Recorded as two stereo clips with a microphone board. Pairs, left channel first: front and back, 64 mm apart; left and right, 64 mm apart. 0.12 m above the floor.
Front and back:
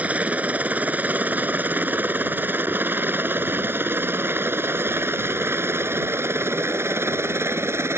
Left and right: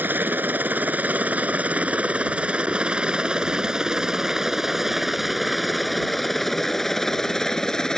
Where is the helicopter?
125° right; by 8.0 s 165° left.